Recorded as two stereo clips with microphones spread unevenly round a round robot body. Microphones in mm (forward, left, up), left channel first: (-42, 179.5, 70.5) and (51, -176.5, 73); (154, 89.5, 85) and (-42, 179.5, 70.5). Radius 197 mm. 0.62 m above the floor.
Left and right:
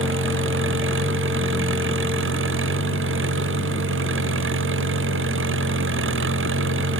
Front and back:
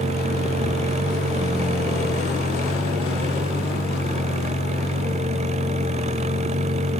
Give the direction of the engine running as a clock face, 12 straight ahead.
4 o'clock.